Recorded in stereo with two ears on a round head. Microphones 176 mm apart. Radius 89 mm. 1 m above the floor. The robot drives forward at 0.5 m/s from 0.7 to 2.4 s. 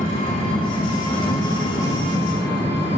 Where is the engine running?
30° left (ahead or behind), 3 m; by 3.0 s 25° left (ahead or behind), 4 m.